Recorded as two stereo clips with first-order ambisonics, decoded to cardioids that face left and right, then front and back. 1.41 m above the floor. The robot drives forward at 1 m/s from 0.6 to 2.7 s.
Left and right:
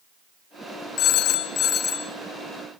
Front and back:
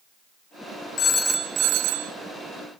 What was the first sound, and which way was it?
A phone ringing, 50° left.